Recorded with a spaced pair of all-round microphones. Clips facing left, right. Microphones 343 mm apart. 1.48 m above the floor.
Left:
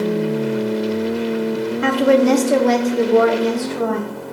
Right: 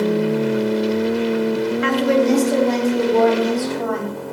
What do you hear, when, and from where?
1.8 s a woman speaking: 55° left (ahead or behind), 0.7 m; by 4.3 s 60° left (ahead or behind), 1.5 m